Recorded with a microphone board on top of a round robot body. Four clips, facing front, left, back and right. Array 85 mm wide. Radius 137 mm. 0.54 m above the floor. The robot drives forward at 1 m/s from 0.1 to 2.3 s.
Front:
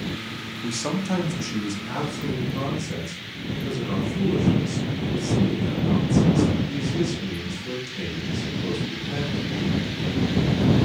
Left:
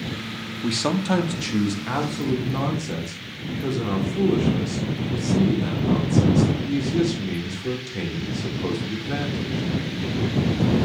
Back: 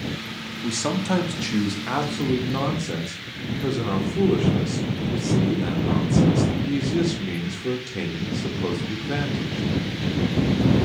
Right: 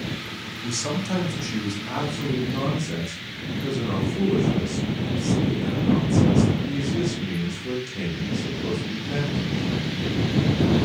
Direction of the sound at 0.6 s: 90° left.